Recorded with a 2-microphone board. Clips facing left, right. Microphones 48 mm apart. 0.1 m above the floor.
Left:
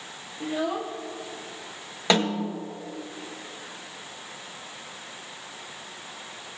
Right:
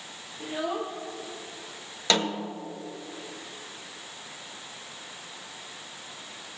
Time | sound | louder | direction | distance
0.4 | a child speaking | left 3 dB | 5° right (ahead or behind) | 1.5 m
2.1 | a snare drum | left 3 dB | 20° left (ahead or behind) | 1.3 m